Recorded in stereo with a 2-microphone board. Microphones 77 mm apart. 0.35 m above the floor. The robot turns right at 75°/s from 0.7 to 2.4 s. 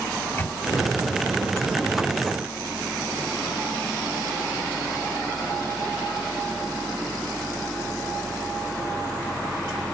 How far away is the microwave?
About 1.4 m.